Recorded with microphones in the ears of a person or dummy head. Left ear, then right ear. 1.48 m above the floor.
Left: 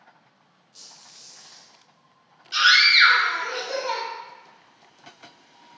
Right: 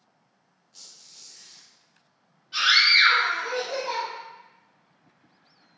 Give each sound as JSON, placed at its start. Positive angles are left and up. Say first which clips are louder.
{"t": 0.7, "sound": "a squeak", "louder": "left 1 dB", "side_deg": 0, "distance_m": 0.8}
{"t": 2.5, "sound": "a scream", "louder": "left 2 dB", "side_deg": 55, "distance_m": 1.2}